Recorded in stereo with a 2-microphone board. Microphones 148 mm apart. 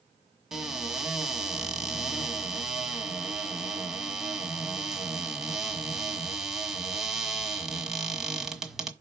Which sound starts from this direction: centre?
A cupboard door, at 0.5 s.